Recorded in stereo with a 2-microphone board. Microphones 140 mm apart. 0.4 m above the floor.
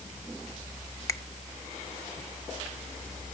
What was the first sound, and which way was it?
A finger snap, 20° left (ahead or behind).